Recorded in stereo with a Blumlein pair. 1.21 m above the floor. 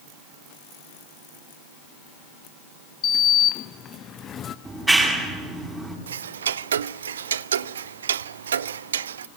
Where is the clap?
10° right, 6.5 m.